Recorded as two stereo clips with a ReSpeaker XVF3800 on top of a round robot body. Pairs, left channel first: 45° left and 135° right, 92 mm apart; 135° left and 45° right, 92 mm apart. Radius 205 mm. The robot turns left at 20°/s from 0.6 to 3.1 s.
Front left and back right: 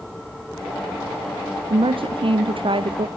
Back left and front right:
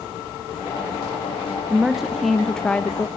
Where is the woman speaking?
125° right, 1.0 m; by 3.1 s 155° right, 1.0 m.